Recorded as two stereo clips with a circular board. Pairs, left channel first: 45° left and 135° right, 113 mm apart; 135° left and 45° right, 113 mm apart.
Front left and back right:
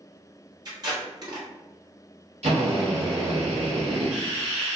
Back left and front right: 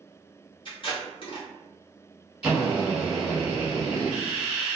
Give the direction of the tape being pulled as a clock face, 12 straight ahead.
6 o'clock.